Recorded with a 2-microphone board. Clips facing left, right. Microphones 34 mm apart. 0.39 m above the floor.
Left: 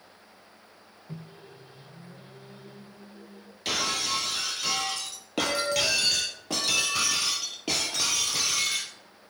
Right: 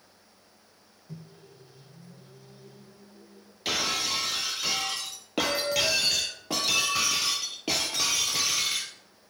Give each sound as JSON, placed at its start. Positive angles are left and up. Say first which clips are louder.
{"t": 1.1, "sound": "a microwave", "louder": "left 3 dB", "side_deg": 40, "distance_m": 0.8}
{"t": 3.6, "sound": "breaking glass", "louder": "even", "side_deg": -5, "distance_m": 1.1}